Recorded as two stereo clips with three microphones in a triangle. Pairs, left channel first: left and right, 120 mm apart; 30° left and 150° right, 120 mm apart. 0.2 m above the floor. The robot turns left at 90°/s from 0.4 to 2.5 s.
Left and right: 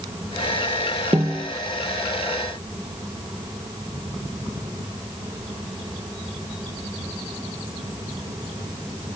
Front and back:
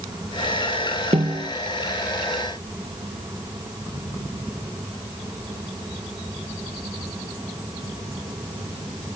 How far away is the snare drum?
About 1.8 m.